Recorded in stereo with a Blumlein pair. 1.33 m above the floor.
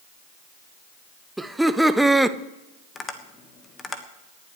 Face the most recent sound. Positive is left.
turn(degrees=15)